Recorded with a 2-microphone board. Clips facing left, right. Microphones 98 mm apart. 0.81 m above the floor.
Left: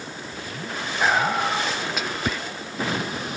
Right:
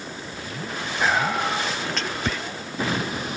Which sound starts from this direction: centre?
Whispering, at 1.0 s.